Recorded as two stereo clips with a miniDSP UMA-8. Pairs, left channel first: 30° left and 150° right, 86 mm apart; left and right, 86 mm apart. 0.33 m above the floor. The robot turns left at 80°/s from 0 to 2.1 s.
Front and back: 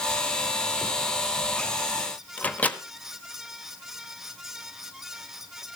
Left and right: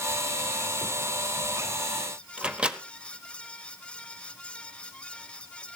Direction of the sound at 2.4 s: 25° right.